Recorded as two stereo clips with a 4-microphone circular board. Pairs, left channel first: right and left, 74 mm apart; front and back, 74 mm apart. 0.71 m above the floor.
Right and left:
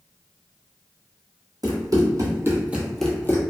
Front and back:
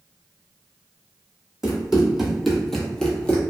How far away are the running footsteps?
About 1.4 m.